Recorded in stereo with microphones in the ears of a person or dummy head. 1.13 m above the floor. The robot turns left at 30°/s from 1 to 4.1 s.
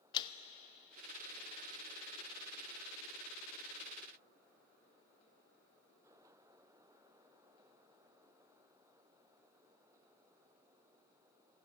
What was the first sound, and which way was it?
A man speaking, 30° left (ahead or behind).